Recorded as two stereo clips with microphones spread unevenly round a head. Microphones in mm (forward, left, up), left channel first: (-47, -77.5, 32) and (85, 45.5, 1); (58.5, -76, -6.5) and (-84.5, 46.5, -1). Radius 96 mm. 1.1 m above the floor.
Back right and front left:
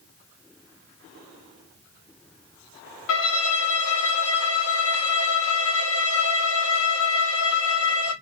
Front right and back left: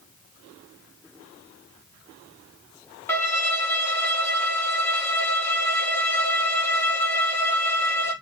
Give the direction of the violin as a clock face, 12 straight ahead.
4 o'clock.